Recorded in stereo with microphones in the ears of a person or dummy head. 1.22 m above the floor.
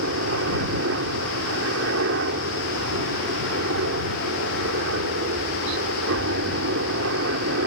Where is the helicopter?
65° right (ahead or behind).